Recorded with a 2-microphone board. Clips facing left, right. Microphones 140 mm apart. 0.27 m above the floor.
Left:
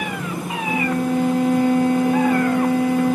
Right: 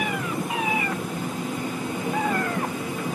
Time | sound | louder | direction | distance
0.7 | a violin | left 7 dB | 70° left (ahead or behind) | ?